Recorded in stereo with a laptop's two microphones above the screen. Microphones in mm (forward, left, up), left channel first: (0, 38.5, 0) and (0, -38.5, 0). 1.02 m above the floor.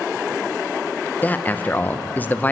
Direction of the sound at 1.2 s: 20° left (ahead or behind).